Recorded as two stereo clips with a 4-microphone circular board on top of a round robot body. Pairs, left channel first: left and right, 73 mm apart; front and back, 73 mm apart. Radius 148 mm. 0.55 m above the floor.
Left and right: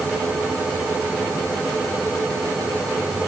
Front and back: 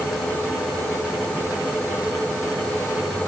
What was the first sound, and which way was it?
Only background noise.